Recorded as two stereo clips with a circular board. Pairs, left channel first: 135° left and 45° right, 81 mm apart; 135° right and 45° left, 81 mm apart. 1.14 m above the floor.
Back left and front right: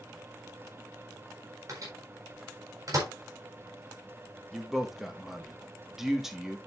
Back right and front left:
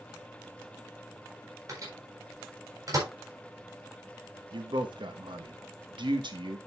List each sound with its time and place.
1.7 s a microwave: straight ahead, 4 m
4.5 s a man speaking: 40° left, 1.6 m